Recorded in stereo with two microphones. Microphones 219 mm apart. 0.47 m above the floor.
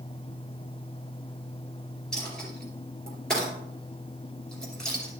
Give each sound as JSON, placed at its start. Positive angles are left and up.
{"t": 2.1, "sound": "a dropped coin", "side_deg": 5, "distance_m": 2.5}